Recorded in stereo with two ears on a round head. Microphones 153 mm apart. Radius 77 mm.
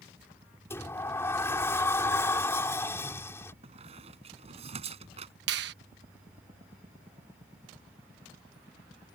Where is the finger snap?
70° right (ahead or behind).